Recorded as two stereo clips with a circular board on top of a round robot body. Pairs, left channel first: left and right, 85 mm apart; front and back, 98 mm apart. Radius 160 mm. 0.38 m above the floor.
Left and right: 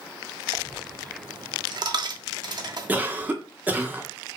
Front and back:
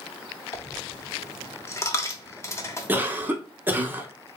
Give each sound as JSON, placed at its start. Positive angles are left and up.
{"t": 0.5, "sound": "a dropped coin", "azimuth_deg": -60, "distance_m": 0.9}
{"t": 2.9, "sound": "a cough", "azimuth_deg": -135, "distance_m": 1.1}